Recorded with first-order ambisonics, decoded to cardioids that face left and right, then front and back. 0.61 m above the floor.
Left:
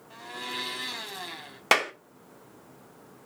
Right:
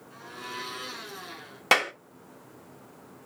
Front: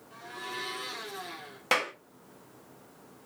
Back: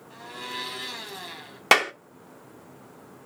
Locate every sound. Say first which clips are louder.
0.1 s a blender: left 3 dB, back 3 dB; 120° left, 3 m
1.7 s a clap: right 1 dB, back 8 dB; 175° left, 0.9 m